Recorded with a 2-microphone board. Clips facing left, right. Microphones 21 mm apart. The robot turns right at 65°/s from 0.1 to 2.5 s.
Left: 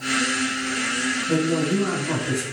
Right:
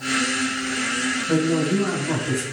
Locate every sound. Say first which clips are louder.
1.3 s a man speaking: right 2 dB; 25° right (ahead or behind), 1.5 m; by 2.4 s centre (ahead or behind), 1.5 m